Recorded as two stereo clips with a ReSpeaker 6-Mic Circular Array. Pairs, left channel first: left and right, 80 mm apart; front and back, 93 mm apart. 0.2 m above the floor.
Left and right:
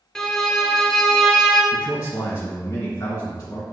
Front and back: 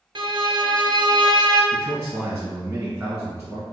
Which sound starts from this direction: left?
A man speaking, at 1.7 s.